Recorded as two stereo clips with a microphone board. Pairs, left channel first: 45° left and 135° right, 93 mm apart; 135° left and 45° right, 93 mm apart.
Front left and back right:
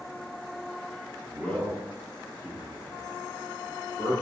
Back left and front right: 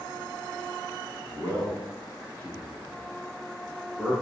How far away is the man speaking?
About 1.2 m.